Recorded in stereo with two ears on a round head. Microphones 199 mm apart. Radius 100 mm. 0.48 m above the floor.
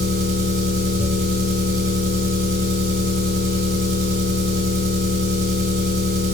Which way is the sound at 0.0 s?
40° right (ahead or behind).